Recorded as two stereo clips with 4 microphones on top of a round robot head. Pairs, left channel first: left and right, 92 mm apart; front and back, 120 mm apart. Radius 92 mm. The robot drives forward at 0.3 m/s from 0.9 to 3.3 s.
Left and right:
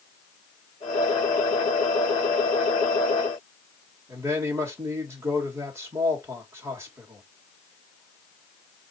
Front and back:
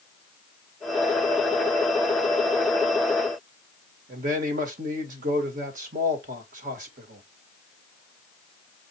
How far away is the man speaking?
About 1.9 m.